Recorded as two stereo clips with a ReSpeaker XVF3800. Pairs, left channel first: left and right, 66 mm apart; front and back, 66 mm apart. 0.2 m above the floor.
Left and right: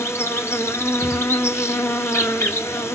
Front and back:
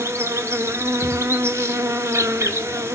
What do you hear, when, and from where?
0.0 s an insect: 135° left, 1.1 m